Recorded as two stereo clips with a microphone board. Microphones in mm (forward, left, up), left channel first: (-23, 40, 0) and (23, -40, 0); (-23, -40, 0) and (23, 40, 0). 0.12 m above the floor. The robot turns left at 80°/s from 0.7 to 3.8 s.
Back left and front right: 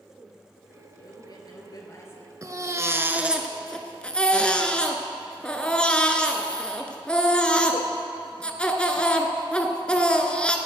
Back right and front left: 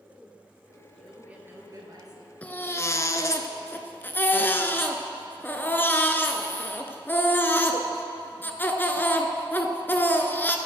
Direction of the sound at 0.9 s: 160° left.